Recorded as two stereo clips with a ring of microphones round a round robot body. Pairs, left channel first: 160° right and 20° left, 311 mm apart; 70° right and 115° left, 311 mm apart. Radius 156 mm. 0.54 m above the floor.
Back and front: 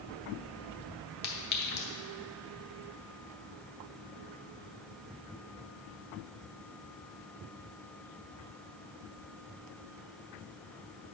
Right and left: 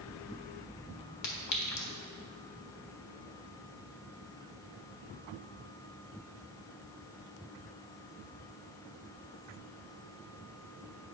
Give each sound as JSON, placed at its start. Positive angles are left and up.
{"t": 1.2, "sound": "a clink", "azimuth_deg": -100, "distance_m": 1.3}